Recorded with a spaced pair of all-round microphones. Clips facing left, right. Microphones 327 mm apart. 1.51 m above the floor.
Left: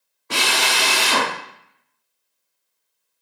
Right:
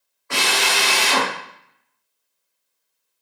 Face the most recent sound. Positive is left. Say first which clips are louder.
# right 1 dB
turn(degrees=45)  # may be behind; listen again after turning